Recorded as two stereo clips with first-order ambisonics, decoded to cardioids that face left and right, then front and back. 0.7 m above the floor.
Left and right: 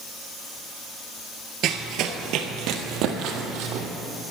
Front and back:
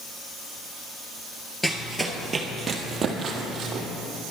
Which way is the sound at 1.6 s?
85° right.